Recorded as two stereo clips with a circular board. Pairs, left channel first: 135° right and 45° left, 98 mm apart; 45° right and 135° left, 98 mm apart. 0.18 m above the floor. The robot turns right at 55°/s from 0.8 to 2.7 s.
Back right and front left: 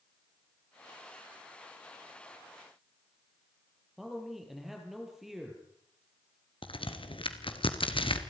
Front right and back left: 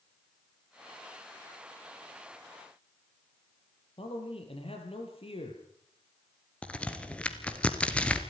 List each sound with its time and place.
4.0 s a man speaking: 40° right, 6 m
6.6 s a crack: 125° right, 1.9 m